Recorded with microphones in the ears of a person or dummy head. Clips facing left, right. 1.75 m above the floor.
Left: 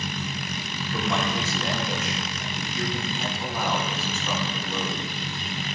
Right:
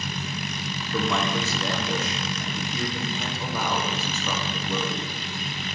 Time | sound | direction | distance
0.9 | a man speaking | 85° right | 1.8 m